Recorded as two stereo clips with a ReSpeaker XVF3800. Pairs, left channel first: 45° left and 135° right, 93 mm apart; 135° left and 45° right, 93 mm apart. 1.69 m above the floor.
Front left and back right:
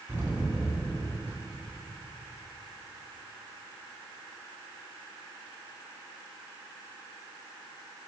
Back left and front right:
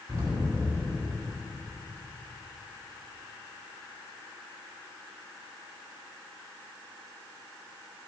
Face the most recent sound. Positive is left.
turn(degrees=-80)